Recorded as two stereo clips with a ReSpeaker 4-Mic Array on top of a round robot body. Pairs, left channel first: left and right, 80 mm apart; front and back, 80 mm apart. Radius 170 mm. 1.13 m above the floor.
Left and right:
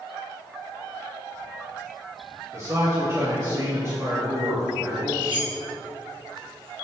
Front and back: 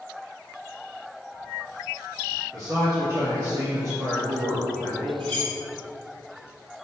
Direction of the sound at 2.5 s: 140° right.